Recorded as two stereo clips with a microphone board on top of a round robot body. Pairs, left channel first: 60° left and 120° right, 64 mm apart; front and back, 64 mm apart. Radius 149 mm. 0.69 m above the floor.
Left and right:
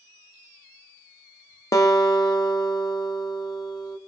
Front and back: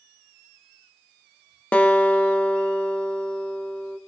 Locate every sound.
1.7 s a guitar: 65° left, 1.2 m